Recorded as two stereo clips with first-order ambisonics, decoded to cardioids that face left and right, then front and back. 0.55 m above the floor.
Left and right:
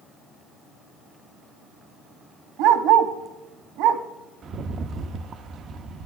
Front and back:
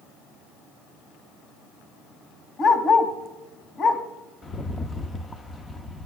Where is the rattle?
55° right, 0.5 m.